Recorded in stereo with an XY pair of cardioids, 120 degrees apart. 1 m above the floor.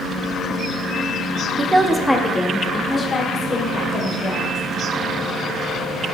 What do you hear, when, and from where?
1.6 s a woman speaking: 25° right, 0.9 m; by 4.6 s 45° left, 3.5 m